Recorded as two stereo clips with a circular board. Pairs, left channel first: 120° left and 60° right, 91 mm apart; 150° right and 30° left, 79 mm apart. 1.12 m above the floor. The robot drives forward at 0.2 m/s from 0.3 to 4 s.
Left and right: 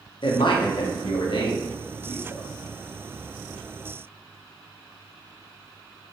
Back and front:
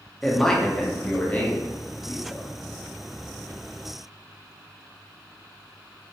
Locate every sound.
0.2 s a man speaking: 125° left, 0.6 m; by 2.5 s 150° left, 0.9 m